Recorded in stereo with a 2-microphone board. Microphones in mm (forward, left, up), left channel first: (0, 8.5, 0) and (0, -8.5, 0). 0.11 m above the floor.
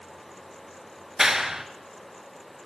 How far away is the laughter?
No laughter in this recording.